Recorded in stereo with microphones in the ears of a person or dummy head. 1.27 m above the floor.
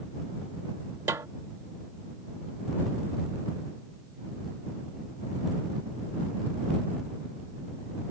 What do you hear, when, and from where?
1.1 s a snare drum: 15° right (ahead or behind)